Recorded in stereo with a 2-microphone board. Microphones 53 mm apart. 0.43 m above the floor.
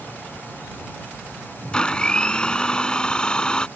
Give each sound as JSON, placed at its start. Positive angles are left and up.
{"t": 1.7, "sound": "a blender", "side_deg": 15}